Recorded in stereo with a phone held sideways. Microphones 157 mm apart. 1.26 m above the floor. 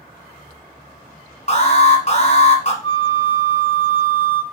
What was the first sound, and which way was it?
An alarm, 50° left (ahead or behind).